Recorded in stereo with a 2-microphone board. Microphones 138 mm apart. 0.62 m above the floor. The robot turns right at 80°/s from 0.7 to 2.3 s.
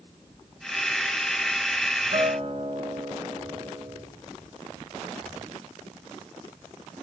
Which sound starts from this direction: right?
A guitar, at 2.1 s.